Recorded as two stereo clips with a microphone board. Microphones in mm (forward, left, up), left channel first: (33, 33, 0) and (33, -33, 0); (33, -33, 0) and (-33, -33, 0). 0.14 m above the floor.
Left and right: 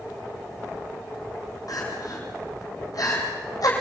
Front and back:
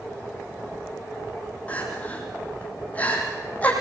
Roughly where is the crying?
Ahead left.